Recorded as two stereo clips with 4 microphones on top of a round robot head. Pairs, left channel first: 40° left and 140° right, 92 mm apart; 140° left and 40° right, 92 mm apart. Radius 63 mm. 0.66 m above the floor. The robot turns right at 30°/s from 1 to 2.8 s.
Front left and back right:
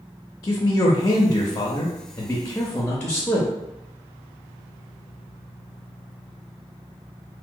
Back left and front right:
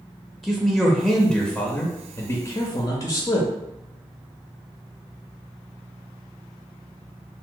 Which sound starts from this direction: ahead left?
A man speaking, at 0.4 s.